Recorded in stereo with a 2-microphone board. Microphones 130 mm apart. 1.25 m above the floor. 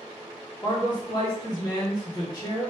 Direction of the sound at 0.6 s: 30° left (ahead or behind).